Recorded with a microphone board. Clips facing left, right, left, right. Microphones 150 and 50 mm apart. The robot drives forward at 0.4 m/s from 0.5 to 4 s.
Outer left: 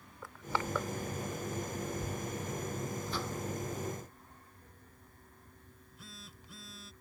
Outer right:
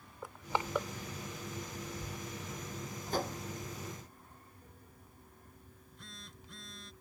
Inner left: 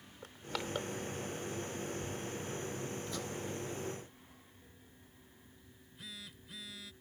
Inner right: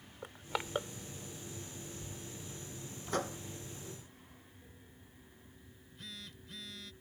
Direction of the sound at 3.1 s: 45° right (ahead or behind).